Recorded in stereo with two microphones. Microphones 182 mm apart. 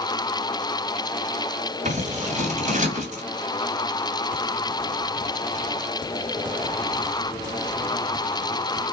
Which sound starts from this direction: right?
Scissors, at 1.9 s.